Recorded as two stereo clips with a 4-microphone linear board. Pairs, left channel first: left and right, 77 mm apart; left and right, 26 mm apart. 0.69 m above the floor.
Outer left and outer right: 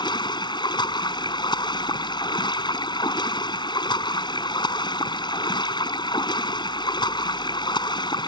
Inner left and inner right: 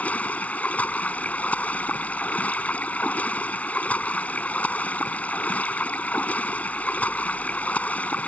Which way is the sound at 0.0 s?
80° left.